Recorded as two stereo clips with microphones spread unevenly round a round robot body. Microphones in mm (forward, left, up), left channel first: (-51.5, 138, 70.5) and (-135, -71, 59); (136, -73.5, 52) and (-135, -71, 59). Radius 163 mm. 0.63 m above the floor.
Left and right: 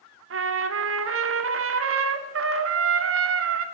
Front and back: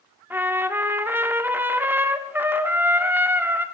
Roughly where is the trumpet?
Right.